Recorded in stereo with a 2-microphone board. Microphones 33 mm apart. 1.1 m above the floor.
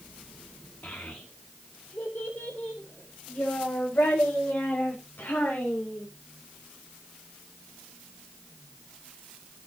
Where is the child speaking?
60° left (ahead or behind), 1.8 m; by 6.0 s 75° left (ahead or behind), 4.5 m.